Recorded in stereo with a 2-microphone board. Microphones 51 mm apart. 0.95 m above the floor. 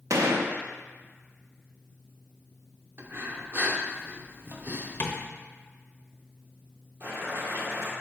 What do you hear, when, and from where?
0.1 s a gunshot: 85° right, 0.6 m
3.0 s breathing: 45° right (ahead or behind), 0.7 m
5.0 s tapping: 45° left (ahead or behind), 0.8 m
7.0 s boiling: 60° right (ahead or behind), 1.9 m